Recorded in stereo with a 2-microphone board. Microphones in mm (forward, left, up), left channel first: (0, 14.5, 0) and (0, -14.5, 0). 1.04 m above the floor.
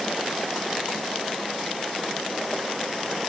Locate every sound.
Only background noise.